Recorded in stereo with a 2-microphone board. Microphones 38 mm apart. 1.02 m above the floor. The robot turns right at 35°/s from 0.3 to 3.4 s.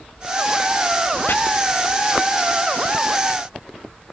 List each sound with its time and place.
1.3 s chopping: 65° left (ahead or behind), 0.7 m